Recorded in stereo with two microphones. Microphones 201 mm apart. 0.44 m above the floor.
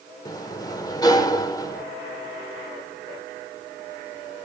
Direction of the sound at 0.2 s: 20° left (ahead or behind).